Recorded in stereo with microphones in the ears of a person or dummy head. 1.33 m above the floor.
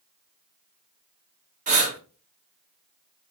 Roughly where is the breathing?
Right.